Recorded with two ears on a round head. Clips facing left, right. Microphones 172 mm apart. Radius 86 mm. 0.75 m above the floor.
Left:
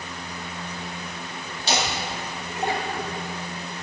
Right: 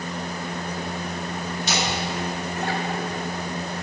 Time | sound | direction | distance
1.6 | laughter | 30° left (ahead or behind) | 1.4 m